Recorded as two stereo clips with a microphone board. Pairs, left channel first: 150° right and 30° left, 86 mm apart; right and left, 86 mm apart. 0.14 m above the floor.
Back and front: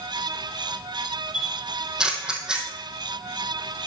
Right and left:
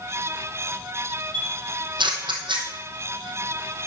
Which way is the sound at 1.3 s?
110° left.